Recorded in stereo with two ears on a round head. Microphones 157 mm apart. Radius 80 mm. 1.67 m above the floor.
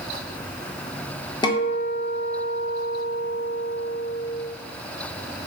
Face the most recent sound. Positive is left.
turn(degrees=25)  # may be behind; listen again after turning